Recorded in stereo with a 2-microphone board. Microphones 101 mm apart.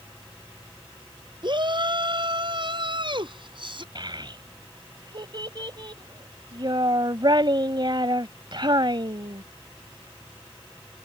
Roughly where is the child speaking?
Right.